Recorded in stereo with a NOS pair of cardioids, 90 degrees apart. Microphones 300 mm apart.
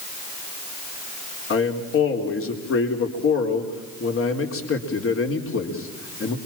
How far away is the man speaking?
About 4 m.